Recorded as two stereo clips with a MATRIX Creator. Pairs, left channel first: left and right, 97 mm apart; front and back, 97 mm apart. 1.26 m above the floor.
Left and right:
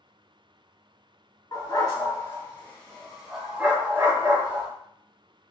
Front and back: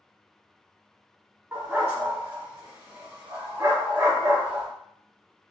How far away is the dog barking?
About 1.2 m.